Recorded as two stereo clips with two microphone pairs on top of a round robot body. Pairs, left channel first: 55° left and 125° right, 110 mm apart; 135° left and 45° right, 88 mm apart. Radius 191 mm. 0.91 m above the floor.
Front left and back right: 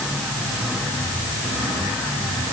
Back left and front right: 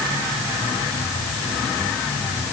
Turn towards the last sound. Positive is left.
No sound to turn to.